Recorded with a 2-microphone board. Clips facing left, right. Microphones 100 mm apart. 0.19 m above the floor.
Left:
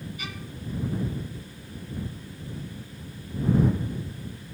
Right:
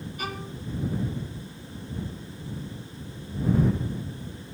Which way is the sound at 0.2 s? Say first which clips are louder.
Right 4 dB; 45° right (ahead or behind).